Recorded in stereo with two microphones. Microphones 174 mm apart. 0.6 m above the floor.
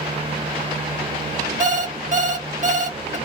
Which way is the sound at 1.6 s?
45° right (ahead or behind).